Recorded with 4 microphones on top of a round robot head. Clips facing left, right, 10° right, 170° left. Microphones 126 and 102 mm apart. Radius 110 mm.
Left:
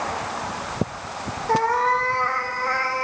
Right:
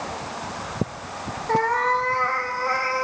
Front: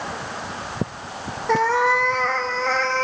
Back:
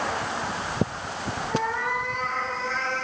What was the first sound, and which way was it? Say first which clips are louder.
A cat meowing: left 1 dB, front 10 dB; 10° left.